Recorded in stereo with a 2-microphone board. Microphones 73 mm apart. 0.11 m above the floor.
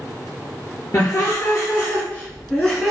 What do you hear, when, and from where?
0.9 s laughter: 45° left (ahead or behind), 1.5 m; by 2.9 s centre (ahead or behind), 1.1 m